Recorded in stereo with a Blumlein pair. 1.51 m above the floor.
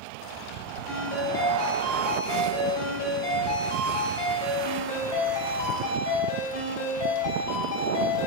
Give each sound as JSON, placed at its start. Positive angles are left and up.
{"t": 0.9, "sound": "a ringtone", "azimuth_deg": 45, "distance_m": 3.5}